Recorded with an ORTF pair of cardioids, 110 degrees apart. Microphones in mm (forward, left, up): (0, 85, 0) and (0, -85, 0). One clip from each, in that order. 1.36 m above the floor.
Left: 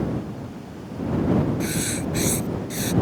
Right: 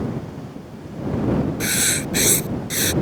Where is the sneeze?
I don't hear a sneeze.